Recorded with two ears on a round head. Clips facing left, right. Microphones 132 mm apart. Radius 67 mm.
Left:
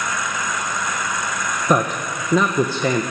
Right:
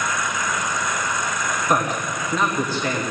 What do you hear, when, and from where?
1.7 s a man speaking: 85° left, 1.5 m